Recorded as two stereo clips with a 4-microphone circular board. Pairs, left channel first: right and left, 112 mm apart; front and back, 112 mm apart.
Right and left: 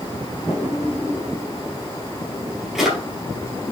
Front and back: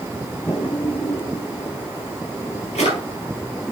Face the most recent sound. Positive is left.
turn(degrees=5)